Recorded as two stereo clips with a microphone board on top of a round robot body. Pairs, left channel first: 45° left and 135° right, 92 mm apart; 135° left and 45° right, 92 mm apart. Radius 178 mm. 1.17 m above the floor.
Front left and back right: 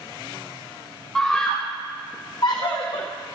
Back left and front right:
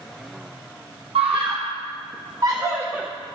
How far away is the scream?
About 1.5 m.